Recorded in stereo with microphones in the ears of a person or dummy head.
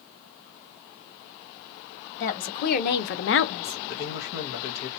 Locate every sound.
2.2 s a woman speaking: 45° left (ahead or behind), 2 m; by 3.8 s 20° left (ahead or behind), 0.8 m
3.9 s a man speaking: 65° left (ahead or behind), 1.7 m